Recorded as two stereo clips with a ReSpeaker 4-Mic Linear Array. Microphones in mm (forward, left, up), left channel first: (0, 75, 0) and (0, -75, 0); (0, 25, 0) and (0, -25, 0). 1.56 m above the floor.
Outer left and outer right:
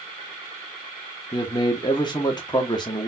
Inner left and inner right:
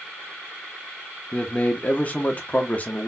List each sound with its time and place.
1.3 s a man speaking: 30° left (ahead or behind), 0.6 m